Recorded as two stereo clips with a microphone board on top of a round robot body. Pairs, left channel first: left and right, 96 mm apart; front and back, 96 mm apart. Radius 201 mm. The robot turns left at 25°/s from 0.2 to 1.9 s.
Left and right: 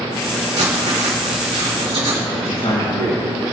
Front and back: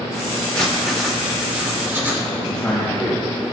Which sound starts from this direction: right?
Writing, at 0.6 s.